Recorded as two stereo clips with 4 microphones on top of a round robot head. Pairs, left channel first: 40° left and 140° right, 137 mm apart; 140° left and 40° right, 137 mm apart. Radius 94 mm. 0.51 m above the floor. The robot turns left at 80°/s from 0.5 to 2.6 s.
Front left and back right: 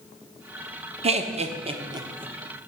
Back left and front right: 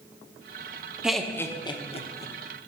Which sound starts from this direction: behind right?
Laughter, at 1.0 s.